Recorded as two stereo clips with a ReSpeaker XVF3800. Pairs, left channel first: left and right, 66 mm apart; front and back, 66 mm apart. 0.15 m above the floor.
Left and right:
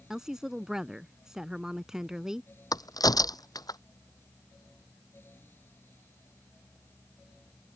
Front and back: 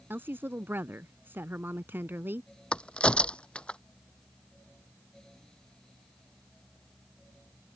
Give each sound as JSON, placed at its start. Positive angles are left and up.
{"t": 0.1, "sound": "a woman speaking", "azimuth_deg": -165}
{"t": 2.7, "sound": "a crack", "azimuth_deg": 75}